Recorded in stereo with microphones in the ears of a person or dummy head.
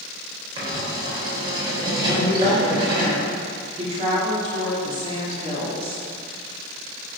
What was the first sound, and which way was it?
Writing, 30° right (ahead or behind).